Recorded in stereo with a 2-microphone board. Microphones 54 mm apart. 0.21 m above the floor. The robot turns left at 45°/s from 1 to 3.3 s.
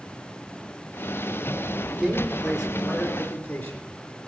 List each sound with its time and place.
1.9 s a man speaking: 150° right, 3.5 m; by 3.8 s 150° left, 3.5 m